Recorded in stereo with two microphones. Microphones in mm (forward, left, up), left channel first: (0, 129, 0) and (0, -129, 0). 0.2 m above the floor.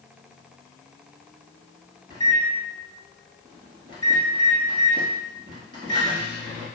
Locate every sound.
2.1 s a microwave: 35° right (ahead or behind), 1.8 m